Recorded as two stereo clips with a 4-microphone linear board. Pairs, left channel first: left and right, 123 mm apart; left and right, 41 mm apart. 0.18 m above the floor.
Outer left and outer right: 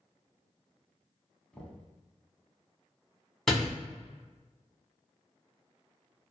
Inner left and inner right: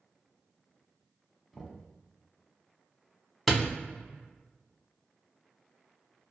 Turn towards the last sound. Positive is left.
turn(degrees=5)  # may be behind; listen again after turning